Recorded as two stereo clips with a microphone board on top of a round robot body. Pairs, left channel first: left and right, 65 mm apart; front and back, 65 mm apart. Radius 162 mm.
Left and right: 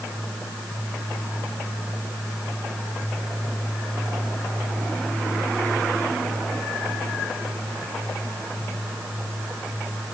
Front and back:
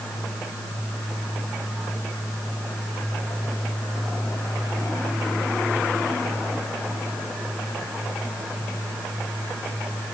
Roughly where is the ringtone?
No ringtone in this recording.